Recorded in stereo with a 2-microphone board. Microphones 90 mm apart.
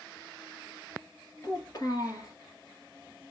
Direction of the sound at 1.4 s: 45° left (ahead or behind).